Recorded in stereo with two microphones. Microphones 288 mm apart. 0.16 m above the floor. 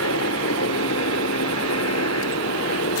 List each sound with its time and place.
0.0 s a helicopter: 60° left (ahead or behind)